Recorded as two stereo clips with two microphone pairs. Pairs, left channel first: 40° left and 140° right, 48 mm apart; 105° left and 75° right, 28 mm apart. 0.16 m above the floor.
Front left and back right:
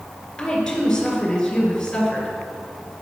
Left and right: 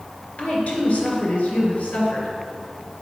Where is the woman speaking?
115° left, 2.5 m.